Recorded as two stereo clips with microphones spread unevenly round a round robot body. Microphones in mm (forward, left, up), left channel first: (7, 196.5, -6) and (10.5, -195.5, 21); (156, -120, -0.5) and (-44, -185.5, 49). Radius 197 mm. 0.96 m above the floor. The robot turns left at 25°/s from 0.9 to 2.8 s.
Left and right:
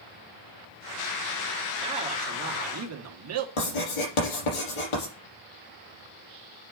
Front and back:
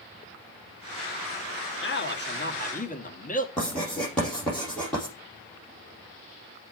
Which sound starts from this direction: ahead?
A man speaking, at 1.8 s.